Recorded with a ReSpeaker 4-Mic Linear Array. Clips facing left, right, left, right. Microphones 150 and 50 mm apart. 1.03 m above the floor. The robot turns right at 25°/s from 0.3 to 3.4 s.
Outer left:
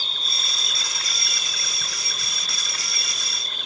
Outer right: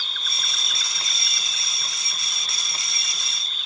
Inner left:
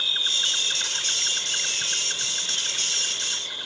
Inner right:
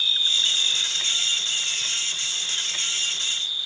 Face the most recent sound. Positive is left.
turn(degrees=115)